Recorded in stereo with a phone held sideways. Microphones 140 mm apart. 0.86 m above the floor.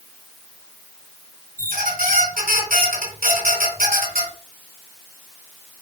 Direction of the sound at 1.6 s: 85° right.